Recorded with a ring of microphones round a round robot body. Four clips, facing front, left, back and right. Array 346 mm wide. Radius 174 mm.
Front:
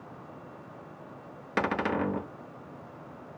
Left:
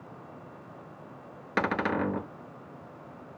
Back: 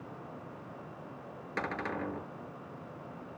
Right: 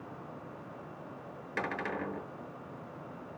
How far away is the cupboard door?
About 1.0 m.